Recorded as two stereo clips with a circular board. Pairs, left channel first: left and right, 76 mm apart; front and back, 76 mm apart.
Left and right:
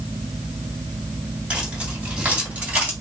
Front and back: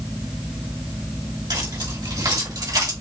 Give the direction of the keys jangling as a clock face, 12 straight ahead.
5 o'clock.